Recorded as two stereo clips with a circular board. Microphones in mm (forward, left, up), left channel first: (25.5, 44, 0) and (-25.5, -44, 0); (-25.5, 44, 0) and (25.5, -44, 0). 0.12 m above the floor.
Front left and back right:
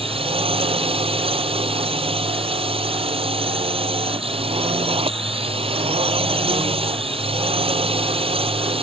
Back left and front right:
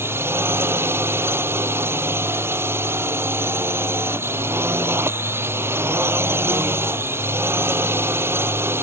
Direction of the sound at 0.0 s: 125° right.